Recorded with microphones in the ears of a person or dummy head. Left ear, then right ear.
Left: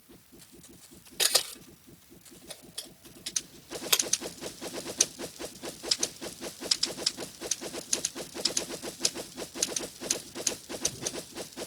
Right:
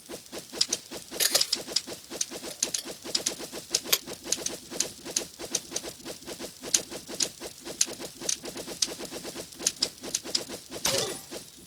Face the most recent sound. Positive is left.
turn(degrees=-10)  # may be behind; listen again after turning